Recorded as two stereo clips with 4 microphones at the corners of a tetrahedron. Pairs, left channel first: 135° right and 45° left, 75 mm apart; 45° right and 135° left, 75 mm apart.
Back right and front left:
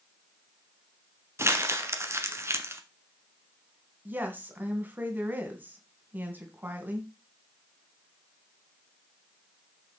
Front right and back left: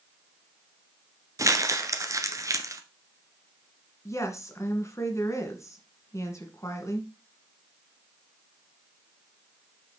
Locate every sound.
1.4 s crumpling: 95° left, 1.1 m
4.0 s a woman speaking: 15° right, 2 m